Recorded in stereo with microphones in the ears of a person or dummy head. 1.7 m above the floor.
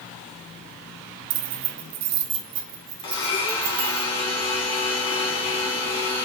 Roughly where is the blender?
Left.